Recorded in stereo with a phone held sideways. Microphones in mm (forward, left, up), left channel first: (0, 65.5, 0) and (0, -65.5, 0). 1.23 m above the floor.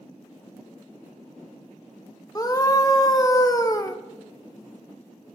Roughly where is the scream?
Left.